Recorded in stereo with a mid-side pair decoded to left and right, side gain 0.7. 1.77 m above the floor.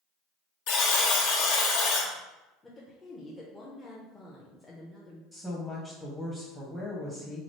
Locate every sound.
0.7 s a buzzer: 65° left, 0.9 m
2.6 s a woman speaking: 15° left, 0.6 m
5.3 s a woman speaking: 5° right, 0.7 m